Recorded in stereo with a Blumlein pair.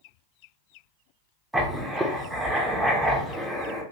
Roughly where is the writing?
Ahead.